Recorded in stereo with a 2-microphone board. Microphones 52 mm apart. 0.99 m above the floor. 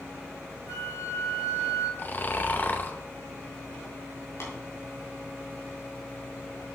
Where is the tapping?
75° left (ahead or behind), 3 m.